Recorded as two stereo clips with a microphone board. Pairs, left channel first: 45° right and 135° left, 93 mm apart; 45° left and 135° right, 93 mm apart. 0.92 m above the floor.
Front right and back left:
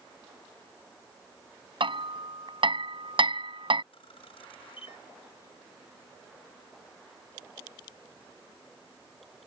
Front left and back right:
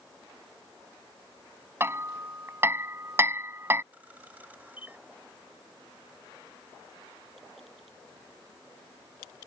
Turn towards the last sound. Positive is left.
turn(degrees=-60)